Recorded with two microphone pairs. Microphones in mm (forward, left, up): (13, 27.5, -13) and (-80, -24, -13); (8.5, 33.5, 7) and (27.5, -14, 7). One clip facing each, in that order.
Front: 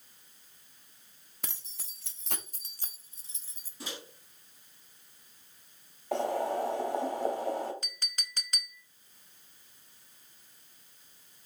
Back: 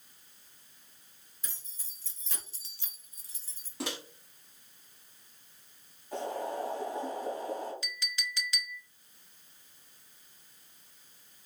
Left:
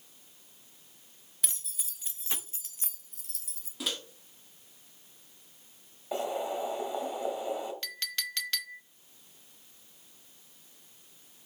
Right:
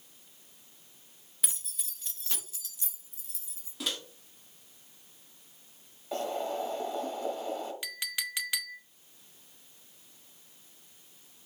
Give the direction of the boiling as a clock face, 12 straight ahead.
11 o'clock.